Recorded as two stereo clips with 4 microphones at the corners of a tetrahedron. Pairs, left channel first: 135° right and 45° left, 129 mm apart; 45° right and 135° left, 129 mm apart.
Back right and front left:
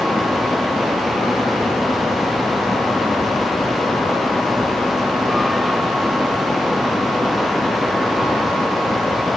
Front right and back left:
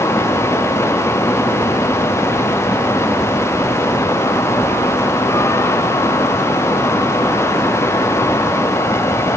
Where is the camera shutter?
I don't hear a camera shutter.